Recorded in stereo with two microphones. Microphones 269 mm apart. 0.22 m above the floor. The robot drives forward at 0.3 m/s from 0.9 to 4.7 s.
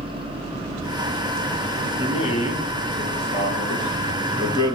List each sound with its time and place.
2.0 s a man speaking: 20° left (ahead or behind), 1.0 m; by 4.8 s 15° left (ahead or behind), 1.2 m